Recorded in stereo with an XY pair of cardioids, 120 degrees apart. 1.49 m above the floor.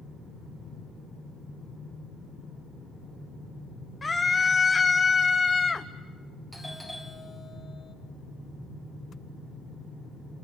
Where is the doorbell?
Straight ahead, 1.7 m.